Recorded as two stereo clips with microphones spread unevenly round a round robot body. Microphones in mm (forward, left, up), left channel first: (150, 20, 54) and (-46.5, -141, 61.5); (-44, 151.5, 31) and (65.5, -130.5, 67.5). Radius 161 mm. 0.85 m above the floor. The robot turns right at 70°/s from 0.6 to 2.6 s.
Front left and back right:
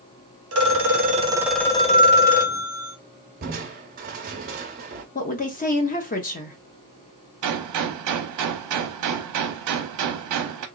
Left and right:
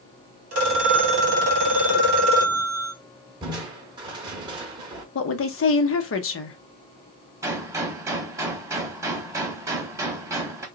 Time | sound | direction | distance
0.5 | a phone ringing | 115° right | 1.1 m
3.4 | crushing | 125° right | 0.5 m
5.2 | a woman speaking | 90° left | 0.8 m
7.4 | a gunshot | 145° right | 0.6 m